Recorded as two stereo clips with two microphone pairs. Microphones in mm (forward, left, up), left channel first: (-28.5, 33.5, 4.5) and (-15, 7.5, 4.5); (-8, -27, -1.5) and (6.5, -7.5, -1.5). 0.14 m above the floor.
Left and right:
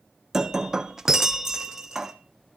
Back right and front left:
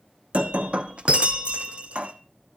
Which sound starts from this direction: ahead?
Breaking glass, at 0.3 s.